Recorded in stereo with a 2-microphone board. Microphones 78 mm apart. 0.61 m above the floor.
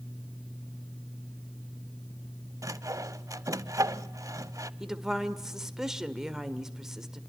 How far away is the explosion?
I don't hear an explosion.